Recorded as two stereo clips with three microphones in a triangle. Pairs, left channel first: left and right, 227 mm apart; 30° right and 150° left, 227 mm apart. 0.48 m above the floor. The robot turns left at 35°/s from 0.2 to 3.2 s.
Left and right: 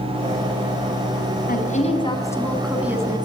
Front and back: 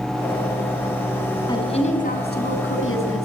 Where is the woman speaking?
40° left, 5 m; by 3.3 s 20° right, 5 m.